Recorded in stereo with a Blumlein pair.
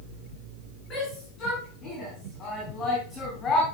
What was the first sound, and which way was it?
A shout, 25° left.